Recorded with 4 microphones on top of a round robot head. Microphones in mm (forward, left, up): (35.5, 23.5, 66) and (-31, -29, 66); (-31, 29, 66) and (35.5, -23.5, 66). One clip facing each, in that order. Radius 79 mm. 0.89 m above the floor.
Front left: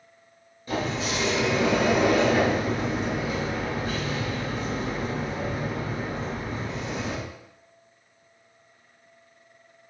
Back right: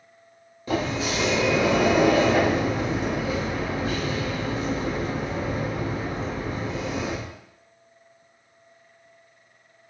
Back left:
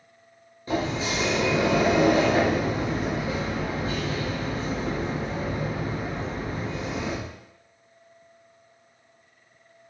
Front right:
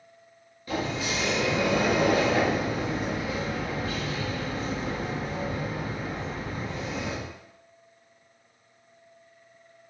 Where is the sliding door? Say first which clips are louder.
Back right 2 dB, back left 3 dB; 150° right, 0.7 m.